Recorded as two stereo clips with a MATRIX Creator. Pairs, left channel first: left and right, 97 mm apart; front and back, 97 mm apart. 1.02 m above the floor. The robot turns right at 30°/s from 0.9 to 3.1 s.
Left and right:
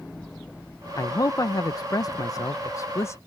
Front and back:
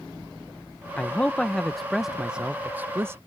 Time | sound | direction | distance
1.0 | a man speaking | 65° left | ?